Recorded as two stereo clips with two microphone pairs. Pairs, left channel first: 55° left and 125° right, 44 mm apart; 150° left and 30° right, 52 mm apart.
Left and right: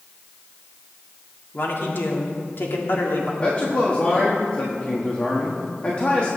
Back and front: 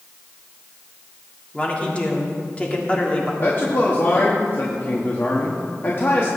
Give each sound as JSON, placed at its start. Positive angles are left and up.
{"t": 1.5, "sound": "a man speaking", "azimuth_deg": 90, "distance_m": 1.9}
{"t": 3.4, "sound": "a man speaking", "azimuth_deg": 115, "distance_m": 1.4}